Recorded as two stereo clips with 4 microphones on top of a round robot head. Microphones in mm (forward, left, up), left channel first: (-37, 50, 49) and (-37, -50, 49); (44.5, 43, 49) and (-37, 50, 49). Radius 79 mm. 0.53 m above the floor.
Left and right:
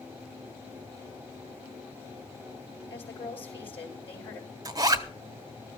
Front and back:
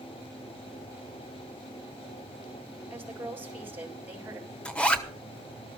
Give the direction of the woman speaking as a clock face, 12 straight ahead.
8 o'clock.